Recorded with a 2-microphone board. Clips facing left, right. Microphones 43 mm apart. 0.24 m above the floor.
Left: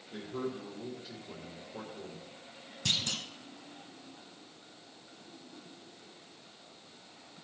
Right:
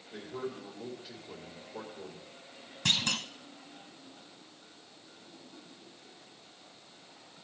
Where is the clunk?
50° right (ahead or behind), 0.7 m.